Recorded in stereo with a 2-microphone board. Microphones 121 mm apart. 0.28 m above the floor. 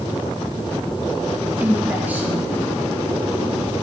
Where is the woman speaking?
15° right (ahead or behind), 4 m.